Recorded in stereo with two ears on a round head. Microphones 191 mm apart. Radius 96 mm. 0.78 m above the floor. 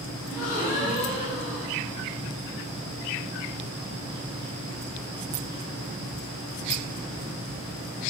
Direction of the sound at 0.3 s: 35° left (ahead or behind).